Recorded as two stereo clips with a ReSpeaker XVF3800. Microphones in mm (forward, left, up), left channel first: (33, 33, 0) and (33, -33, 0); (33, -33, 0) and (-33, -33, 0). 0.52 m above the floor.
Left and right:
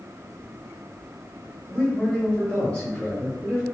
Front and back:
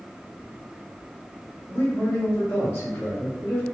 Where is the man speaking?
20° left, 1.6 m.